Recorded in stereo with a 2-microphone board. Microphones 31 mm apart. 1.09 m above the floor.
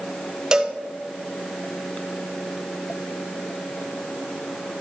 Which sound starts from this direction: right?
A cowbell, at 0.5 s.